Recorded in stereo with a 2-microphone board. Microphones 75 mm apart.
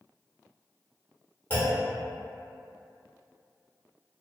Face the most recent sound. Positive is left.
turn(degrees=25)  # may be behind; listen again after turning